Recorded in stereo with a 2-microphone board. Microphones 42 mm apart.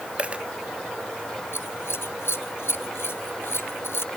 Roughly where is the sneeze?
I don't hear a sneeze.